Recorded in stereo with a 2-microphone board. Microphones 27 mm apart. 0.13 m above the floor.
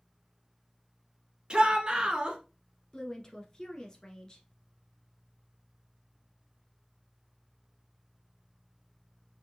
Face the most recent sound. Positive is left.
turn(degrees=25)  # may be behind; listen again after turning